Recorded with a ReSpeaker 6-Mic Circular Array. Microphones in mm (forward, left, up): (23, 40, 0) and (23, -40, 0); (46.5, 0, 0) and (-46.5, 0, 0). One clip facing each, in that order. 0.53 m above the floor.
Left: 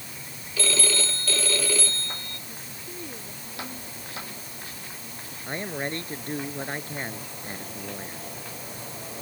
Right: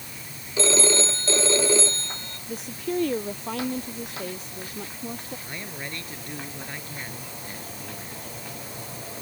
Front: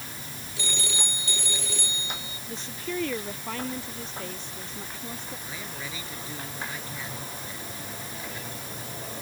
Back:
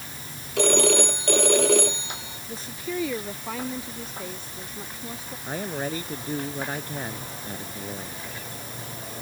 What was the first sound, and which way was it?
A phone ringing, 155° right.